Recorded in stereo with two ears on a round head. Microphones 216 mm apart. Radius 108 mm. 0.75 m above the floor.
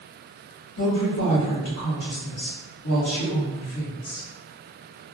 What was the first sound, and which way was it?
A woman speaking, 60° left (ahead or behind).